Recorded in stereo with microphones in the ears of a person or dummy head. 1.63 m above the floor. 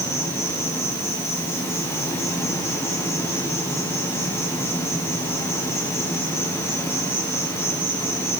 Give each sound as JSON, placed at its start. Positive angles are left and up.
{"t": 0.0, "sound": "an insect", "side_deg": 10, "distance_m": 1.6}